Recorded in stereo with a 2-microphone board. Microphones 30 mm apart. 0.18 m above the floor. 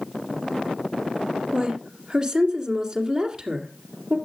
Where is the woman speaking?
20° right (ahead or behind), 2 m.